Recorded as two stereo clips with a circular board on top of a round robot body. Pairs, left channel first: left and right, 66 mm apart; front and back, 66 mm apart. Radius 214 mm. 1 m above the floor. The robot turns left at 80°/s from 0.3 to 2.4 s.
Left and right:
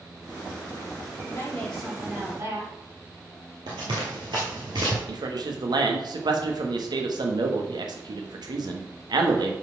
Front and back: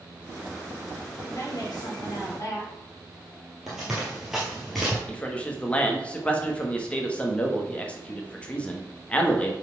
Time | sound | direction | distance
1.2 | a woman speaking | 45° left | 4.5 m
3.7 | running footsteps | 95° right | 1.4 m
5.1 | a man speaking | 75° right | 1.5 m